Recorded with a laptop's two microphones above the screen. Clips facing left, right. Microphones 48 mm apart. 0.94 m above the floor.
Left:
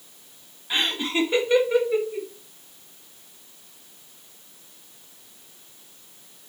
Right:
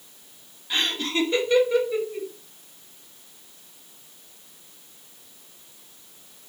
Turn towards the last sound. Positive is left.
turn(degrees=15)  # may be behind; listen again after turning